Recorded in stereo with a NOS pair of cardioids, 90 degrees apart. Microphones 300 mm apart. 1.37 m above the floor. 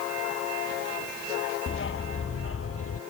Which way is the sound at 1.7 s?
40° left.